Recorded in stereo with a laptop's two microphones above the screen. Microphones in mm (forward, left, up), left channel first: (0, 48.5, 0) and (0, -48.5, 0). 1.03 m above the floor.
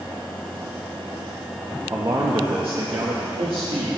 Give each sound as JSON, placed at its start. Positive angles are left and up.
{"t": 1.9, "sound": "a man speaking", "side_deg": -30, "distance_m": 1.2}